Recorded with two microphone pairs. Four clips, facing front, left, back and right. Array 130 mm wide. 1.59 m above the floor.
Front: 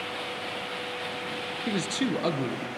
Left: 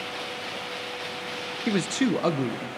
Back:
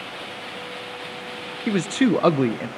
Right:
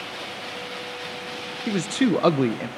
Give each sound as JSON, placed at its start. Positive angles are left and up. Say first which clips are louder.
{"t": 1.7, "sound": "a man speaking", "louder": "right 3 dB, back 9 dB", "azimuth_deg": 145, "distance_m": 0.5}